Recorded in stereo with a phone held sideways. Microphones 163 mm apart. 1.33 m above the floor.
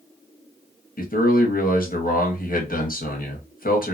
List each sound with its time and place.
1.0 s a man speaking: 60° left (ahead or behind), 1.0 m